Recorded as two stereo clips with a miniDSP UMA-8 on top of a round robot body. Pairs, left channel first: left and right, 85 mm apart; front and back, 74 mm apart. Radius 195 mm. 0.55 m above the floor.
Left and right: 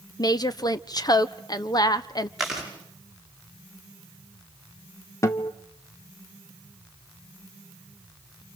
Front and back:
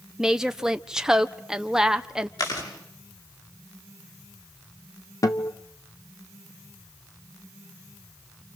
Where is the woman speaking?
100° left, 1.3 m.